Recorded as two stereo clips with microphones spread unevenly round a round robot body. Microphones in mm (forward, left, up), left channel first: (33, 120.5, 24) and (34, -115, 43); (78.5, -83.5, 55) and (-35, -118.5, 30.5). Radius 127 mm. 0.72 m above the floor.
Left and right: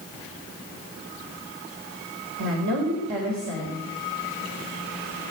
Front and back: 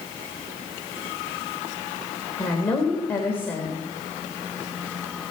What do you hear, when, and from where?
2.4 s a woman speaking: 60° right, 3.5 m